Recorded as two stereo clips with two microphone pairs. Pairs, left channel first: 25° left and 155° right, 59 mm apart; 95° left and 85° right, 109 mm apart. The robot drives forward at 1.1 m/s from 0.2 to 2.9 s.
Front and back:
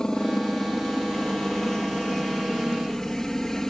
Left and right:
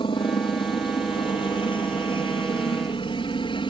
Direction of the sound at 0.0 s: 100° left.